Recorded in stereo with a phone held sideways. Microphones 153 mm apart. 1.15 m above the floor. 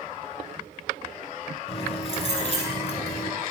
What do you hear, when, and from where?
1.7 s keys jangling: 40° left (ahead or behind), 8 m